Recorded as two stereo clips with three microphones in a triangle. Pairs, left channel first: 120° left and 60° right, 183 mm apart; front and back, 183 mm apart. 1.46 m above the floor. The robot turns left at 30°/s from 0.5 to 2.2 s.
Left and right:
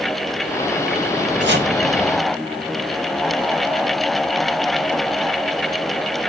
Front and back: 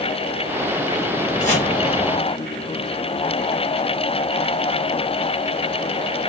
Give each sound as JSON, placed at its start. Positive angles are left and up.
{"t": 1.4, "sound": "chopping", "azimuth_deg": -50, "distance_m": 1.2}